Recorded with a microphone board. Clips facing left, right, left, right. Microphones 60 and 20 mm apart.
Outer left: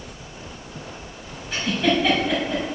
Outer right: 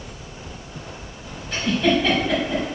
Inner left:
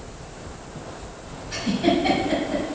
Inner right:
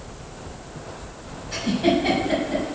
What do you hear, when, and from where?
1.5 s a giggle: 5° left (ahead or behind), 4 m